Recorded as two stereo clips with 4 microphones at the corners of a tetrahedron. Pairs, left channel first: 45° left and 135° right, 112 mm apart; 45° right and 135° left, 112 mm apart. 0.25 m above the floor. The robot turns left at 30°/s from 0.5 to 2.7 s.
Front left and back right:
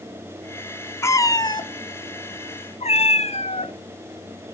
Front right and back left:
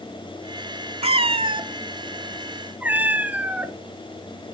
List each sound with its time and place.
1.0 s a cat meowing: 110° left, 0.7 m; by 3.8 s 60° left, 0.7 m